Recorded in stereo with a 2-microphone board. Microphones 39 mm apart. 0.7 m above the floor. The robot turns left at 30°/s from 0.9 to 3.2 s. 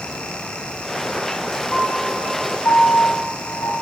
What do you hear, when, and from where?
1.7 s a piano: 30° left (ahead or behind), 5.5 m; by 3.7 s 70° left (ahead or behind), 5.5 m